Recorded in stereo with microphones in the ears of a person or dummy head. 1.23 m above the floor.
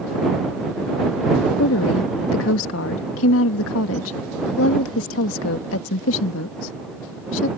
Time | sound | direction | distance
1.6 | a woman speaking | 70° left (ahead or behind) | ?